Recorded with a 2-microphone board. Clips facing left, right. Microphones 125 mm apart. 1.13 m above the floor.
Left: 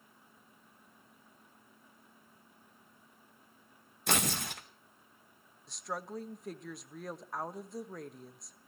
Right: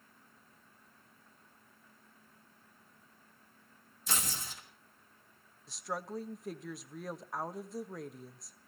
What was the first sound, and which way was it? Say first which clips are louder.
Tearing paper: left 7 dB; 65° left (ahead or behind).